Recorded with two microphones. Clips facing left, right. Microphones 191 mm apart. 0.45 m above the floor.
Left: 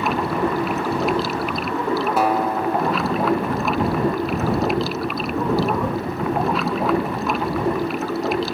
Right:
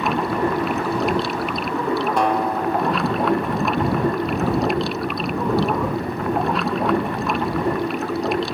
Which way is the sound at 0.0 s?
Centre (ahead or behind).